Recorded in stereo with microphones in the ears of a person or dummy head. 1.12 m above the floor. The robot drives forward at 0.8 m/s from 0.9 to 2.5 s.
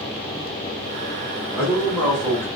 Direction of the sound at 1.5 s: 5° left (ahead or behind).